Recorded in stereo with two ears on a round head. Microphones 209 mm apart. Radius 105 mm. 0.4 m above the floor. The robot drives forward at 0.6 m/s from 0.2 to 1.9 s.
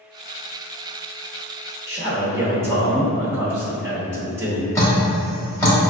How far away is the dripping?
About 1.2 m.